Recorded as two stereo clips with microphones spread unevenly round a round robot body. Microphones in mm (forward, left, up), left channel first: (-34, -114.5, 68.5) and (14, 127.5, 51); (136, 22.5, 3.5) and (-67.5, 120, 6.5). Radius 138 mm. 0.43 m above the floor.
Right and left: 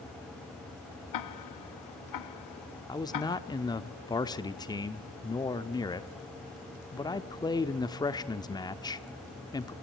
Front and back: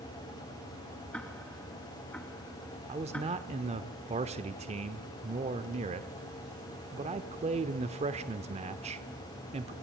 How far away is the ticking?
About 0.9 m.